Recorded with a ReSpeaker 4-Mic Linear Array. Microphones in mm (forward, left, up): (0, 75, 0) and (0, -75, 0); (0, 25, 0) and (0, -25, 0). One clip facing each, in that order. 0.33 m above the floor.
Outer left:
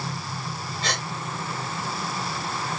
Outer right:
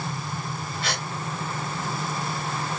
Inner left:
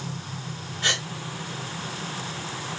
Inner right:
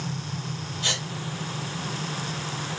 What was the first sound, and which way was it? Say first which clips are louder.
A gasp: outer left 1 dB, inner left 4 dB; 35° left (ahead or behind).